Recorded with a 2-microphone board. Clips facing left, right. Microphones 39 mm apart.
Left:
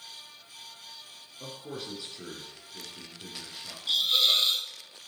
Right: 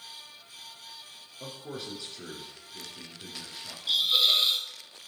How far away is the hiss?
About 1.3 m.